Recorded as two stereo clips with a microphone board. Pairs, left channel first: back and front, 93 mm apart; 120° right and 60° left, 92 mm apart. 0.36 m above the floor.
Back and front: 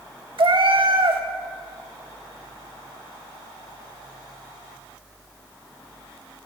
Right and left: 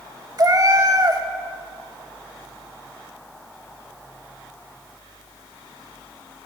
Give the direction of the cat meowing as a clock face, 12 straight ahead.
12 o'clock.